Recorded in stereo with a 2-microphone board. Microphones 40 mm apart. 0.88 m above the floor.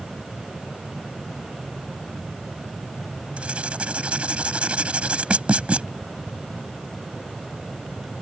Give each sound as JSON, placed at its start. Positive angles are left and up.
{"t": 3.4, "sound": "writing", "side_deg": -30}